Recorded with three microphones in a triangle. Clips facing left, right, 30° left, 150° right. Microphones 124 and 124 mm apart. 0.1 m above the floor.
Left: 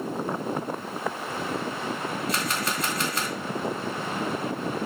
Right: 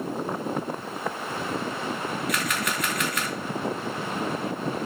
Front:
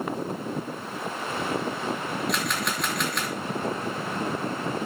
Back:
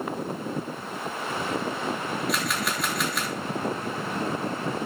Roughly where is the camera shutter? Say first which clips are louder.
Even, even; behind left.